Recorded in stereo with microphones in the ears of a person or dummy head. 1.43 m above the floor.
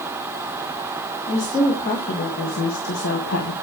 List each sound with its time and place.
1.3 s a woman speaking: 35° left (ahead or behind), 1.9 m; by 3.5 s 75° left (ahead or behind), 1.2 m